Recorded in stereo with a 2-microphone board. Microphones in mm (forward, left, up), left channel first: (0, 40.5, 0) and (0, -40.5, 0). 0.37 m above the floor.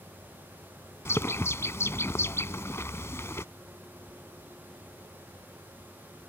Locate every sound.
1.1 s a bird: 35° left (ahead or behind)